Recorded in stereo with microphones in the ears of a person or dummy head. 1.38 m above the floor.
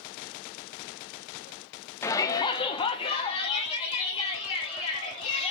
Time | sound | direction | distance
2.0 | a shout | 5° left (ahead or behind) | 0.6 m